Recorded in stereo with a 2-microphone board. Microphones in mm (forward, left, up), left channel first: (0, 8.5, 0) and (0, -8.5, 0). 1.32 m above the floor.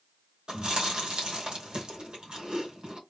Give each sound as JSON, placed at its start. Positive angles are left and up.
{"t": 0.5, "sound": "chewing", "side_deg": -75, "distance_m": 2.5}